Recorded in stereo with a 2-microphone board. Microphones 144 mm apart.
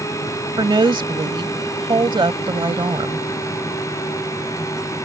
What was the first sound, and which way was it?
A woman speaking, 35° right (ahead or behind).